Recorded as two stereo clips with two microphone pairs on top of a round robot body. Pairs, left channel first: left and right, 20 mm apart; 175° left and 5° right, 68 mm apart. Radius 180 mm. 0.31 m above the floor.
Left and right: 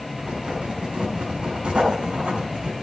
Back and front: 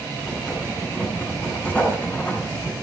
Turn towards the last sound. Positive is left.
turn(degrees=-115)